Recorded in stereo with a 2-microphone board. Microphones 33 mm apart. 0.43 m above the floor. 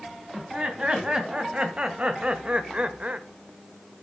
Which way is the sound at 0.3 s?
30° right (ahead or behind).